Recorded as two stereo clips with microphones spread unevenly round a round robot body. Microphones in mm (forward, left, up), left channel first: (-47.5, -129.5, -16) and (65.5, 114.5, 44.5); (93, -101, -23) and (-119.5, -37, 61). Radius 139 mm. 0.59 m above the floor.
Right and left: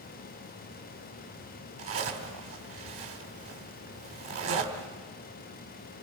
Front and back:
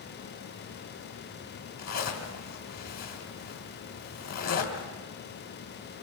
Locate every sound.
1.8 s a zipper: 20° left, 2.5 m